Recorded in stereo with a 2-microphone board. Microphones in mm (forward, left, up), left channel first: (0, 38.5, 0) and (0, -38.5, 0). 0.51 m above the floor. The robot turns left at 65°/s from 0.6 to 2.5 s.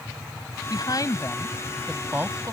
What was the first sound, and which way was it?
A woman speaking, 70° left.